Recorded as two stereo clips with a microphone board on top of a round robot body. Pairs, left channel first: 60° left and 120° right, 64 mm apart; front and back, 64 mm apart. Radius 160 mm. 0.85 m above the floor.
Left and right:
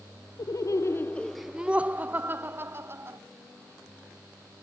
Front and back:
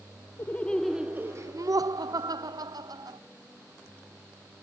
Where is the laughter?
55° left; by 3.2 s 170° right.